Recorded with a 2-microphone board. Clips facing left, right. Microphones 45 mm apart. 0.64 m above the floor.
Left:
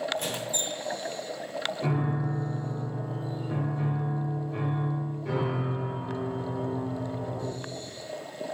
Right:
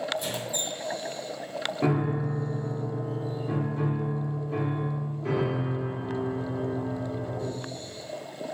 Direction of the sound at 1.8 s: 75° right (ahead or behind).